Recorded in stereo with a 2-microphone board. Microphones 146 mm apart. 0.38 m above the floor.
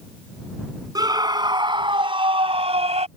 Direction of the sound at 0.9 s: 25° right (ahead or behind).